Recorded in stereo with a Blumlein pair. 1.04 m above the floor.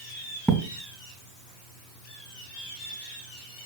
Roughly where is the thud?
Ahead.